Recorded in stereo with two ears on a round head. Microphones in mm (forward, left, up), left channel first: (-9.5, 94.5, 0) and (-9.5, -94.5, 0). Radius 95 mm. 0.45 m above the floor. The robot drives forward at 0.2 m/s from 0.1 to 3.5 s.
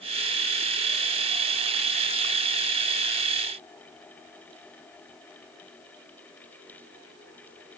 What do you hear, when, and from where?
Only background noise.